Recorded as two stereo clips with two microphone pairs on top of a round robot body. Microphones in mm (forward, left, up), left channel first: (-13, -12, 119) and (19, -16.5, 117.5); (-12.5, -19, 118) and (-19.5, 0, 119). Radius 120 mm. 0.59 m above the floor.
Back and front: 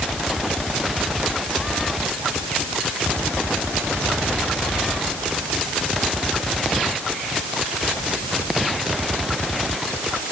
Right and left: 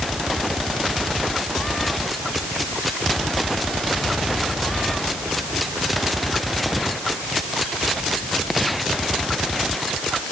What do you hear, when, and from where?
Only background noise.